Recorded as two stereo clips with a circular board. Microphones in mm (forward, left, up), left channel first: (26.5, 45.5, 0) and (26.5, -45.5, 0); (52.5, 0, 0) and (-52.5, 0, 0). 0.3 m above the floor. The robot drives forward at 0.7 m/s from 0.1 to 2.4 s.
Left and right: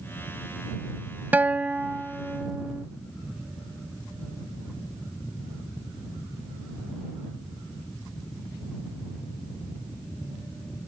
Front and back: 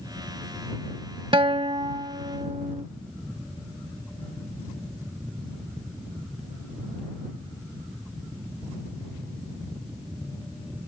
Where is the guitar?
155° right; by 2.9 s 170° right.